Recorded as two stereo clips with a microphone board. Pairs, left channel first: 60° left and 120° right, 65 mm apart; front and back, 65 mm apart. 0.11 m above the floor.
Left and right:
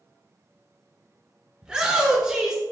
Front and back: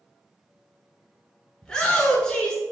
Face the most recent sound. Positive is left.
turn(degrees=-60)